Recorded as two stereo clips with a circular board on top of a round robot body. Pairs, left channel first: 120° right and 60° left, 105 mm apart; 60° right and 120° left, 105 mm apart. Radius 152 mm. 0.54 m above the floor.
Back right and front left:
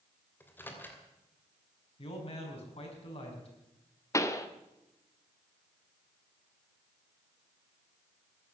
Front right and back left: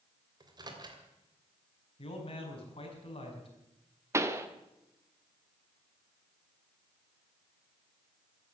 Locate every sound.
0.4 s a microwave: 170° left, 3 m
2.0 s a man speaking: 90° right, 5.5 m
4.1 s a pop: straight behind, 1.6 m